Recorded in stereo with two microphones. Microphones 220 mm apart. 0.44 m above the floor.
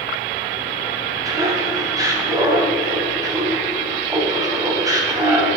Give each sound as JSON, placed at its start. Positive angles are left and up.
{"t": 1.2, "sound": "laughter", "side_deg": -15, "distance_m": 3.0}